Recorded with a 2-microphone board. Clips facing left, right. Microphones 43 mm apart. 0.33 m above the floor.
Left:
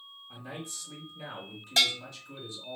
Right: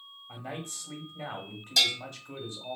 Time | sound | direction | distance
0.3 | a man speaking | 45° right (ahead or behind) | 1.2 m
1.8 | a bell | 35° left (ahead or behind) | 1.4 m